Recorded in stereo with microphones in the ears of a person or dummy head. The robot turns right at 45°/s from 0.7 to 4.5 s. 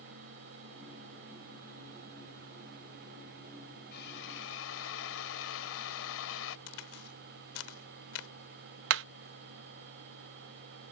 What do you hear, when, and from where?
3.9 s a drill: 55° left (ahead or behind); by 6.6 s 80° left
6.7 s a crack: 80° left
8.9 s hammering: 65° right (ahead or behind)